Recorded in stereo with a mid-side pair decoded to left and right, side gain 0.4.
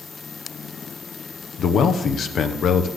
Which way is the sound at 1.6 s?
70° left.